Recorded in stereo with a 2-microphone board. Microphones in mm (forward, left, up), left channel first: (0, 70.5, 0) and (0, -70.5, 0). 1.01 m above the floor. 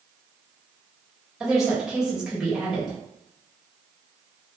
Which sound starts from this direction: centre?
A woman speaking, at 1.4 s.